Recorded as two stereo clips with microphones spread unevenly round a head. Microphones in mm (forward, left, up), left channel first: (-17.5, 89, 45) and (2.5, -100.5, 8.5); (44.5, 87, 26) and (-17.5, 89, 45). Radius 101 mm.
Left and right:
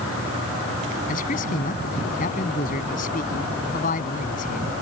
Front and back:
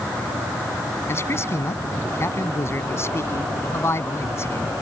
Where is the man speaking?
45° left.